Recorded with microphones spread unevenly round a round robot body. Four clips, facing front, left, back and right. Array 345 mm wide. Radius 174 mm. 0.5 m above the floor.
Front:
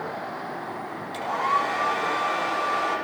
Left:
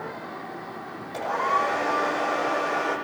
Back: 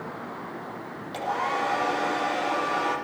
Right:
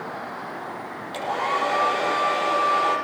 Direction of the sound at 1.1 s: 130° right.